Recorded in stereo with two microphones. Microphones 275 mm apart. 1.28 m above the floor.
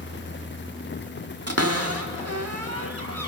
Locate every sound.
1.5 s a cupboard door: 60° right (ahead or behind), 1.4 m